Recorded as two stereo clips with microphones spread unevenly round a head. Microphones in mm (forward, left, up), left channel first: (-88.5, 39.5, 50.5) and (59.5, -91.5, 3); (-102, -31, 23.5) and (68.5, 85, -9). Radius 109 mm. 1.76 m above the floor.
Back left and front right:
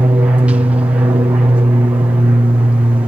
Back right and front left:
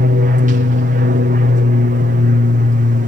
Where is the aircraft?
25° left.